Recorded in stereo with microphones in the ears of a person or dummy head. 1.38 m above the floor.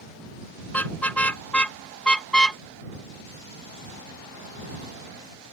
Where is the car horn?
5° left (ahead or behind).